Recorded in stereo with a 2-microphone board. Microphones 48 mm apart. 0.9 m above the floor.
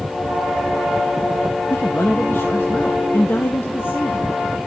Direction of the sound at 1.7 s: 50° left (ahead or behind).